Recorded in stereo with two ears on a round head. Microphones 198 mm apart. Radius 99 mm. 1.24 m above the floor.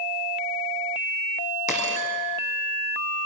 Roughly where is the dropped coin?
Left.